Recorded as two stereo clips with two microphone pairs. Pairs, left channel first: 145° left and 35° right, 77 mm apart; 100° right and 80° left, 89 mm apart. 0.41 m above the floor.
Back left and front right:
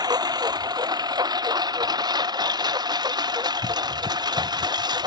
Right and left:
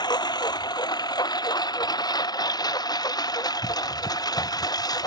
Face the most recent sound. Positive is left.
turn(degrees=-55)